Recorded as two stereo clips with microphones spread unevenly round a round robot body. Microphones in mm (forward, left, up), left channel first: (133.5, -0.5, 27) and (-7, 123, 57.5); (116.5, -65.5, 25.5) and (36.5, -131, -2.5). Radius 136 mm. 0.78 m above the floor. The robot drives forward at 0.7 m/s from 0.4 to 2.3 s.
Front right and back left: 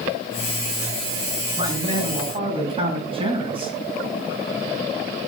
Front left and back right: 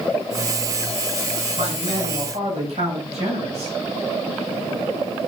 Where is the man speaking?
150° right, 7 m; by 3.7 s 155° right, 7.5 m.